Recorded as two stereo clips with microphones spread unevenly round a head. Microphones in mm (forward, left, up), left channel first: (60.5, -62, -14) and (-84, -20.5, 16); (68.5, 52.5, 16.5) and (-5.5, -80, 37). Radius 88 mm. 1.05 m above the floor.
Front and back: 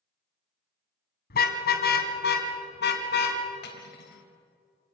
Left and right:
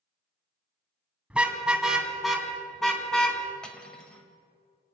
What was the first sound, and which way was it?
A car horn, 40° right.